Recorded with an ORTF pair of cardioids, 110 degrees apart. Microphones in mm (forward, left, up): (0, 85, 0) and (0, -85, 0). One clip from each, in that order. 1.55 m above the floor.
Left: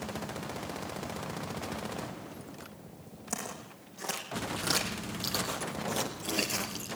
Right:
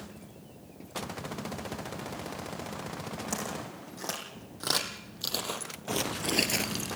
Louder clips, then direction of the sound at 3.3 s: Even; 15° right.